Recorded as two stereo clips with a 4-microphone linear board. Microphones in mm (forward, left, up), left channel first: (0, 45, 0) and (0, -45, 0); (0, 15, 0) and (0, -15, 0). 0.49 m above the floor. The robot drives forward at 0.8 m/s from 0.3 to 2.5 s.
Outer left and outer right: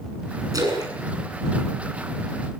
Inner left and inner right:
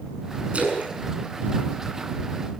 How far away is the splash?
About 6.5 m.